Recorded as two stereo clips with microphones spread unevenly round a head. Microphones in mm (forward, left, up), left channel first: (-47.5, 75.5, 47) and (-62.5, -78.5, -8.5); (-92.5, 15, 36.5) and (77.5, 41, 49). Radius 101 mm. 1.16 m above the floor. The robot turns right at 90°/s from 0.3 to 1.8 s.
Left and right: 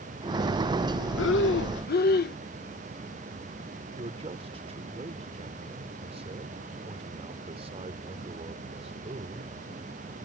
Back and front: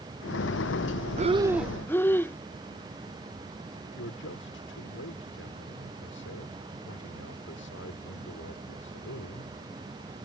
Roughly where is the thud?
I don't hear a thud.